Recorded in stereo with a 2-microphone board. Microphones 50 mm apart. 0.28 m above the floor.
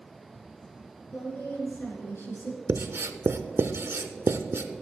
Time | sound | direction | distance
1.1 | a woman speaking | 50° left (ahead or behind) | 4.5 m
2.7 | writing | 55° right (ahead or behind) | 0.7 m